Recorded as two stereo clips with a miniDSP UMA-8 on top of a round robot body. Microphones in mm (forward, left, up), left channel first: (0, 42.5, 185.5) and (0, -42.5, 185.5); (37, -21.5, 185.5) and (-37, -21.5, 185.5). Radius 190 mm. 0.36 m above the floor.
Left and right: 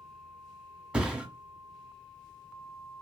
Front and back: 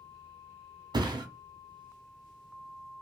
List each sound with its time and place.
0.9 s a thud: 165° right, 1.3 m